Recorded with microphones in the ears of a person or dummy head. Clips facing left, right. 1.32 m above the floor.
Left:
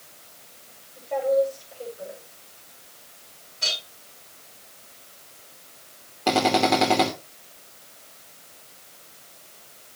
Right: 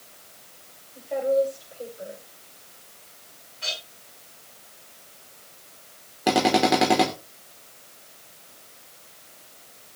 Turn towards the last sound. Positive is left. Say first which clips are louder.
# right 1 dB
turn(degrees=-10)  # may be behind; listen again after turning